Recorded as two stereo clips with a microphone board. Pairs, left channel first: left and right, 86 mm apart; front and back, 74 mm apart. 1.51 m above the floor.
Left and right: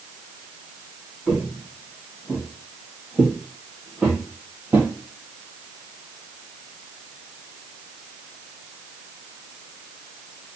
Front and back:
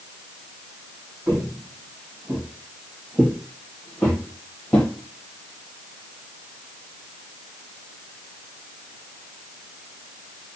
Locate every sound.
1.3 s footsteps: 175° left, 1.8 m; by 4.9 s 45° right, 1.7 m